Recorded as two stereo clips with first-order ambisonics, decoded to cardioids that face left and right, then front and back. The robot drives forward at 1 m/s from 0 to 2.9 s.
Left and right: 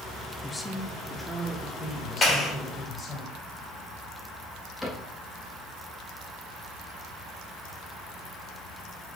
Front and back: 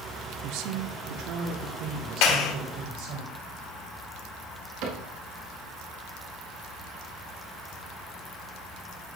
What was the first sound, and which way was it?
A woman speaking, 170° left.